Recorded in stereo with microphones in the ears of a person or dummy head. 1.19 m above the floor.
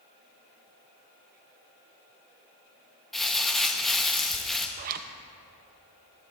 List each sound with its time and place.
3.1 s crumpling: centre (ahead or behind), 1.0 m
4.8 s a zipper: 50° right (ahead or behind), 0.8 m